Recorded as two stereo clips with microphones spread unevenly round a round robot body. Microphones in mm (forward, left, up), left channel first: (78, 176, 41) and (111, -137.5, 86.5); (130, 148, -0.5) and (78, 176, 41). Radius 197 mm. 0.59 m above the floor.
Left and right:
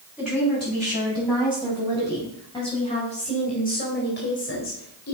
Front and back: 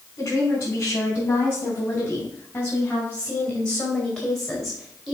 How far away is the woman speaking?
About 5.5 m.